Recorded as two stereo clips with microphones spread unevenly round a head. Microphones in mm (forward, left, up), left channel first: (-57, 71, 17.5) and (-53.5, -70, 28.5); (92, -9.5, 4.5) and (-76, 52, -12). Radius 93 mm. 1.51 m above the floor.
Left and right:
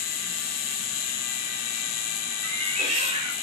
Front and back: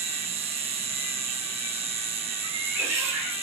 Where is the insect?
100° left, 0.7 m.